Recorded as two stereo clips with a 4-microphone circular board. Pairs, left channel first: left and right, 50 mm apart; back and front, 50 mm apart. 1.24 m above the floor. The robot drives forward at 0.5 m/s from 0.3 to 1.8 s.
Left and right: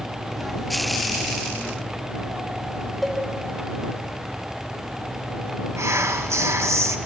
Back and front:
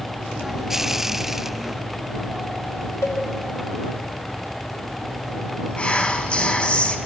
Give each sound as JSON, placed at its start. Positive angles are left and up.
{"t": 3.0, "sound": "a cowbell", "azimuth_deg": -175, "distance_m": 2.5}
{"t": 5.8, "sound": "whispering", "azimuth_deg": -115, "distance_m": 1.4}